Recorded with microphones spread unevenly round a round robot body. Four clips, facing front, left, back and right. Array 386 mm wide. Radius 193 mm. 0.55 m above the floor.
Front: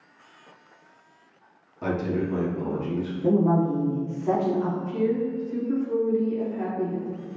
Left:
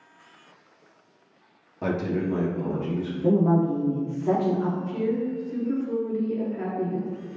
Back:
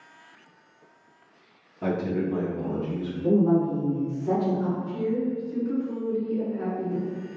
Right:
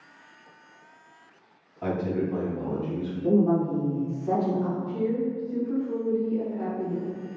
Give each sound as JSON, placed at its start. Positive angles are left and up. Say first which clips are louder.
{"t": 1.8, "sound": "a man speaking", "louder": "left 1 dB, even", "azimuth_deg": 100, "distance_m": 0.7}
{"t": 3.2, "sound": "a woman speaking", "louder": "left 1 dB, even", "azimuth_deg": 70, "distance_m": 1.0}
{"t": 4.9, "sound": "a woman speaking", "louder": "left 1 dB, front 2 dB", "azimuth_deg": 85, "distance_m": 1.1}